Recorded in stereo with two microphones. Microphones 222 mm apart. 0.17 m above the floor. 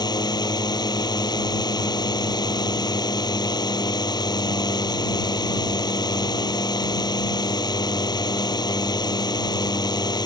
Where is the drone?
20° left (ahead or behind).